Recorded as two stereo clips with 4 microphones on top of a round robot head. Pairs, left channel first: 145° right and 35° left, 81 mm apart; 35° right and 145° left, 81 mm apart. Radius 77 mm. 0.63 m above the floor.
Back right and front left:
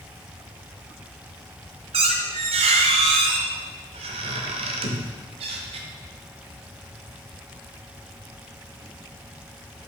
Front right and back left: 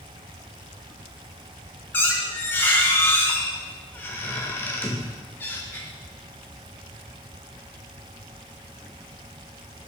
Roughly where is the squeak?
Ahead left.